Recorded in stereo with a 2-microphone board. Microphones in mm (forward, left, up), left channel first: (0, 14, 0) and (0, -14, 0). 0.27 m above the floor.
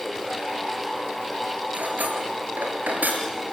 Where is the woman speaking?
No woman speaking in this recording.